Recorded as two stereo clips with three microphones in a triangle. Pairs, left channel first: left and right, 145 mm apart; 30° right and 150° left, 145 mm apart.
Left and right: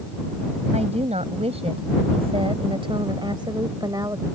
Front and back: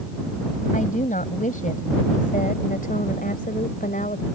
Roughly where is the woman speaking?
Ahead right.